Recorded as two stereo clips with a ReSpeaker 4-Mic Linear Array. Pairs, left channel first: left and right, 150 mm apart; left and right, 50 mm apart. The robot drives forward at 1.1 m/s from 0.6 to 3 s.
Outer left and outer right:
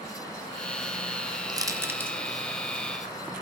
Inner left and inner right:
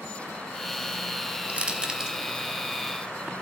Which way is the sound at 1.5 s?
25° right (ahead or behind).